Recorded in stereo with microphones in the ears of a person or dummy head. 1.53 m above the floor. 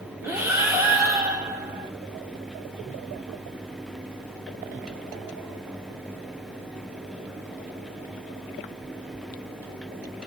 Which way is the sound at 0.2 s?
15° right (ahead or behind).